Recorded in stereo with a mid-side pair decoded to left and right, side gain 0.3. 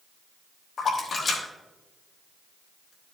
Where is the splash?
70° left, 3 m.